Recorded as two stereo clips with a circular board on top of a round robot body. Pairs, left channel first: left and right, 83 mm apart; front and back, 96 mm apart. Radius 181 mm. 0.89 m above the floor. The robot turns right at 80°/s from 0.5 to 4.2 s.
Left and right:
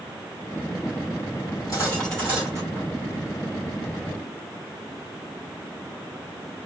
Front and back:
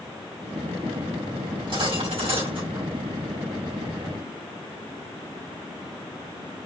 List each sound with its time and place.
1.5 s cutlery clinking: 125° left, 3.5 m; by 2.9 s 125° right, 3.5 m